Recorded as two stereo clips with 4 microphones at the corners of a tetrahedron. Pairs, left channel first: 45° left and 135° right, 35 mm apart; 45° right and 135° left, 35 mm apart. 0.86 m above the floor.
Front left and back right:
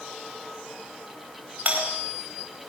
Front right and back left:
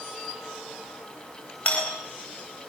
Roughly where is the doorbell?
Right.